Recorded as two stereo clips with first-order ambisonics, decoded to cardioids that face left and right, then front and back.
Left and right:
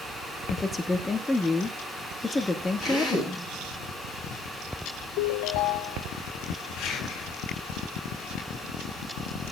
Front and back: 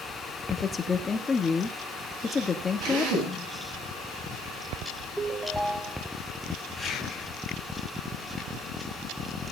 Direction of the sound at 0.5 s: 30° left.